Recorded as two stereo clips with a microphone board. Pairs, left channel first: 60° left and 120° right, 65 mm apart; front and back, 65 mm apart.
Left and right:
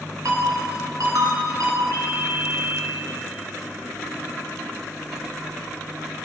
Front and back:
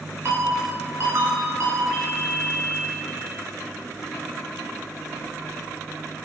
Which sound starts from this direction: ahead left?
A ringtone, at 1.9 s.